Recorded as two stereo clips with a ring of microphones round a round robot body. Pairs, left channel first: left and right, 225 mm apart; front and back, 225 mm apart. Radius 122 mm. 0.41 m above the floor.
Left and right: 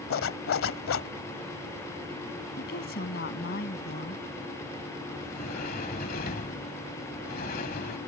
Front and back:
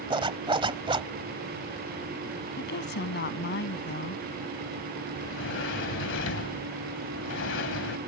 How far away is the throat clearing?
No throat clearing in this recording.